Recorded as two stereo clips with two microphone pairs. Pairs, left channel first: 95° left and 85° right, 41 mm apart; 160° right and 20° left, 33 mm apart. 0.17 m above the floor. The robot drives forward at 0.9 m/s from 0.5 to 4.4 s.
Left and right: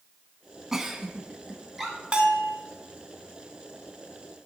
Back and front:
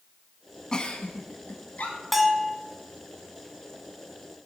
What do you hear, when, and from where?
0.7 s a giggle: 145° right, 0.7 m; by 2.0 s 175° right, 1.5 m
2.1 s a bell: 65° right, 0.7 m; by 2.6 s 125° right, 0.8 m